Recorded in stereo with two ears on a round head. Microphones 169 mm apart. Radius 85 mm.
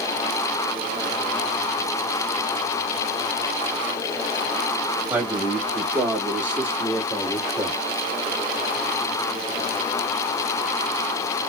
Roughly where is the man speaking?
Centre.